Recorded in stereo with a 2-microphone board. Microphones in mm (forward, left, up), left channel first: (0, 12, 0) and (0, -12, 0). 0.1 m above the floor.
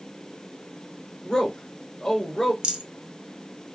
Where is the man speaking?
20° left (ahead or behind), 1.2 m.